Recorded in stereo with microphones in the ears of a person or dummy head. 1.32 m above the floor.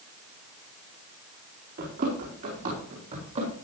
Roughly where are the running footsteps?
Right.